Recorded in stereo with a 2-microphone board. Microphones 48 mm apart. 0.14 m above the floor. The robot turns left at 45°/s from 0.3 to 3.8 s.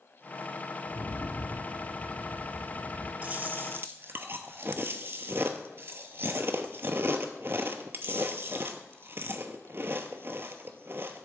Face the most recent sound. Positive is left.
turn(degrees=-55)  # may be behind; listen again after turning